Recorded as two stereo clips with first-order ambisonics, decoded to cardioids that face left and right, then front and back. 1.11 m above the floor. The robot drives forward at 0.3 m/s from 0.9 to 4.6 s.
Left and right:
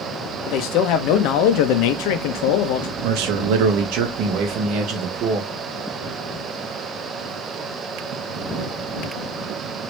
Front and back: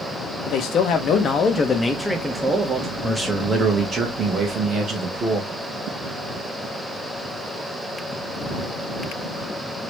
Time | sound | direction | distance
0.5 | a man speaking | 55° left | 0.6 m
3.0 | a man speaking | 95° right | 0.7 m